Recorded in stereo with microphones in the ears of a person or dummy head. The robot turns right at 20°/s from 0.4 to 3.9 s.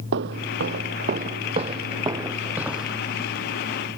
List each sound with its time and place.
0.1 s footsteps: 55° right (ahead or behind); by 2.9 s centre (ahead or behind)